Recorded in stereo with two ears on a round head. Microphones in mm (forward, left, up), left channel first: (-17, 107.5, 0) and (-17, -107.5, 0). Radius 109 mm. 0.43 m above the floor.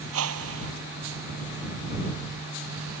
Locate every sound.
0.1 s a whoosh: 70° right (ahead or behind)